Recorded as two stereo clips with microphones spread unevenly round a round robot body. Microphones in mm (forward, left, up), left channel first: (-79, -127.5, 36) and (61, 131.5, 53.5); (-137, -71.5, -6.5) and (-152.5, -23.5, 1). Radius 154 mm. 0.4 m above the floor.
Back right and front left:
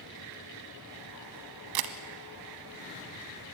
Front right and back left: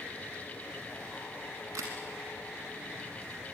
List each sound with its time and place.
1.8 s a camera shutter: 65° left, 1.4 m